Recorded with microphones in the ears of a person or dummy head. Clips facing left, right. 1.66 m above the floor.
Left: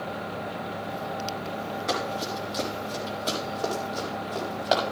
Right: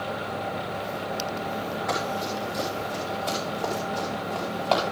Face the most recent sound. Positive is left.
turn(degrees=15)  # may be behind; listen again after turning